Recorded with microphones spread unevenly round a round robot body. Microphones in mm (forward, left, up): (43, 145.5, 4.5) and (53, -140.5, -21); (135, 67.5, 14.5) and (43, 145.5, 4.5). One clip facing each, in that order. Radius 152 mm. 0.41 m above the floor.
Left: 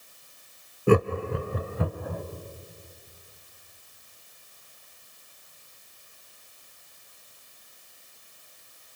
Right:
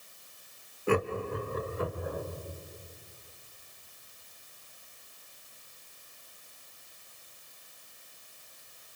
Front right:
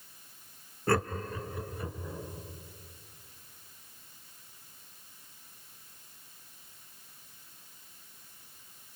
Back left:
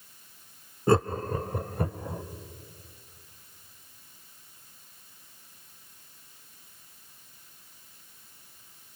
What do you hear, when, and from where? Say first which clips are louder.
0.9 s laughter: left 7 dB, back left 6 dB; 100° left, 0.8 m; by 2.2 s 115° left, 2 m